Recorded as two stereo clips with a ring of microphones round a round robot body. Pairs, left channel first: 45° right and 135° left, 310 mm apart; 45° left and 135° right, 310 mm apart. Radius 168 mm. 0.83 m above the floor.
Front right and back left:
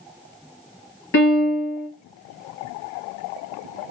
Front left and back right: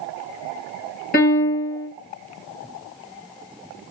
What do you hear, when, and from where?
1.1 s a piano: 5° right, 1.4 m